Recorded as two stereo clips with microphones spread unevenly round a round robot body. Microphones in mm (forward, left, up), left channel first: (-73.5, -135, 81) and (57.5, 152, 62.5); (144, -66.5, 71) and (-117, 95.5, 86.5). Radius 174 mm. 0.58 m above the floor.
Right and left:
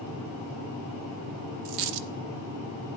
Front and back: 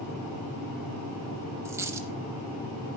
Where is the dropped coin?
70° left, 0.5 m.